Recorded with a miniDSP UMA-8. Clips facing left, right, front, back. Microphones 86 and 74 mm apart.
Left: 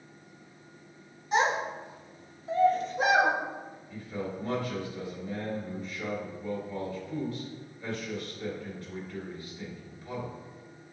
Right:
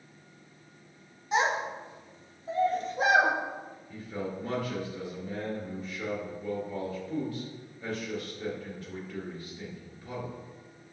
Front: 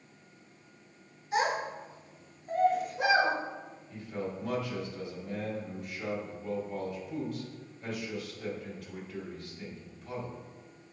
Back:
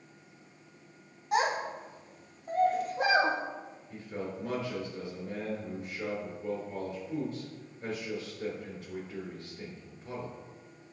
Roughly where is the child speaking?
Behind.